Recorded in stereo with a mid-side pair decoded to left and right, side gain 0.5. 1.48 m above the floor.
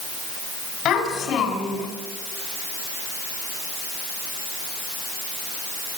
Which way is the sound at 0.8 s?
70° left.